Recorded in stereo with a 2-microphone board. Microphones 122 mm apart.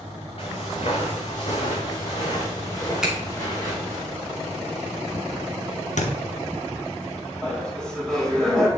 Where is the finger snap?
5° right (ahead or behind), 2 m.